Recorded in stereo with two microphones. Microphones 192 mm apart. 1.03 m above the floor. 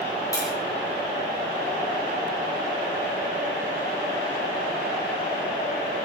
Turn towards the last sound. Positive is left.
turn(degrees=20)  # may be behind; listen again after turning